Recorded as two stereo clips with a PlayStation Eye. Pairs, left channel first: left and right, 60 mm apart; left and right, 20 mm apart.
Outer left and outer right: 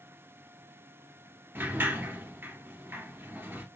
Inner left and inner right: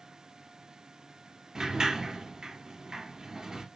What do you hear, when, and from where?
1.6 s a sliding door: 35° right (ahead or behind), 2 m